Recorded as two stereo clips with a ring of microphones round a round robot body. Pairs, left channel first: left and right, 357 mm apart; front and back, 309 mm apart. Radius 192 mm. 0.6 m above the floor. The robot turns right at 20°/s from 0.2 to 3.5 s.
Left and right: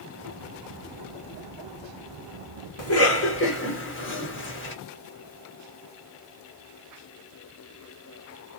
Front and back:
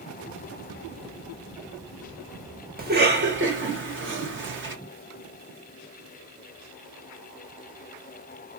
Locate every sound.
2.8 s a cough: 125° left, 1.6 m; by 4.8 s 140° left, 1.6 m